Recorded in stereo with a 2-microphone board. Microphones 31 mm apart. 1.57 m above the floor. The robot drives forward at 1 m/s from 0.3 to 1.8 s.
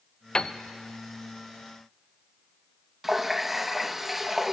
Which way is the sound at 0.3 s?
25° left (ahead or behind).